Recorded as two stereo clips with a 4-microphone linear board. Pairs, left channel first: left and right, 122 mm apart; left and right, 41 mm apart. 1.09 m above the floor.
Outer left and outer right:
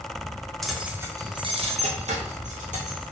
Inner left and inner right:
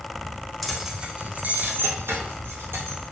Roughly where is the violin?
I don't hear a violin.